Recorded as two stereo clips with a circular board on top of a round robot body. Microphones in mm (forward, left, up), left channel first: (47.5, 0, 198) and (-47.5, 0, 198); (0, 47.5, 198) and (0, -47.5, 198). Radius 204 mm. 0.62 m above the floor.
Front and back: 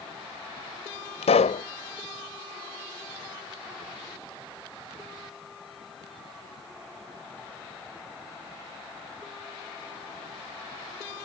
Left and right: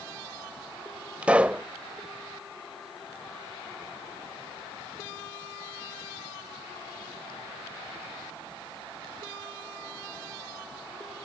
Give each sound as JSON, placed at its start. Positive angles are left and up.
{"t": 1.2, "sound": "a pop", "azimuth_deg": -10}